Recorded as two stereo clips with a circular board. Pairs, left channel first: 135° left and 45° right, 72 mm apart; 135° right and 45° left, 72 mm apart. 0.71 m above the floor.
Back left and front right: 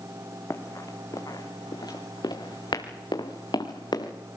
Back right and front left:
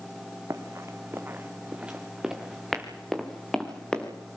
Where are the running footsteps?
90° left, 2.5 m; by 4.1 s 150° left, 4.5 m.